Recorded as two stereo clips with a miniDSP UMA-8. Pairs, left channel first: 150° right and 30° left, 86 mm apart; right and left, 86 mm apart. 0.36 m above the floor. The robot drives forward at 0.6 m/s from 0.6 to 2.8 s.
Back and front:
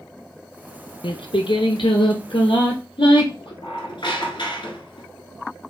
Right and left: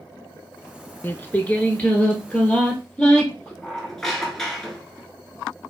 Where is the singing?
155° right, 0.6 m; by 3.5 s 170° right, 1.6 m.